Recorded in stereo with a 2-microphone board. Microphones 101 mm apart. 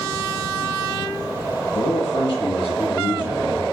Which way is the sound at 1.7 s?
55° left (ahead or behind).